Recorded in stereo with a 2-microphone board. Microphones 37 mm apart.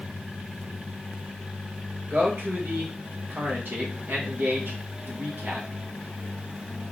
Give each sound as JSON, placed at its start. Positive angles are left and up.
{"t": 2.1, "sound": "a man speaking", "side_deg": -75, "distance_m": 1.9}